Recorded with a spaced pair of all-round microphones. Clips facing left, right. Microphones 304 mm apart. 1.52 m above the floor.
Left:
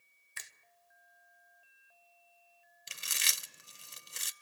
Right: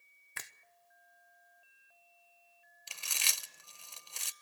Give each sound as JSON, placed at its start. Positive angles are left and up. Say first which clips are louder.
{"t": 0.4, "sound": "a finger snap", "louder": "right 5 dB", "side_deg": -65, "distance_m": 0.6}
{"t": 2.9, "sound": "chewing", "louder": "even", "side_deg": 20, "distance_m": 0.6}